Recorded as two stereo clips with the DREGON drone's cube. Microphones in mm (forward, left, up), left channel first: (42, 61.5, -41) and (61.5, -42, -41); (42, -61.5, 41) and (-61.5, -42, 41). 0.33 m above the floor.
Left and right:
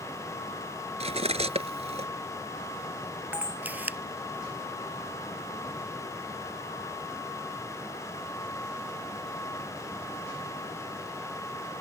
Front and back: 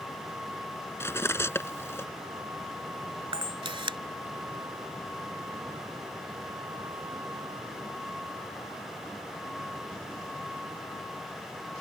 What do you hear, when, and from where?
1.0 s cutlery clinking: 80° right
3.3 s a camera shutter: 150° right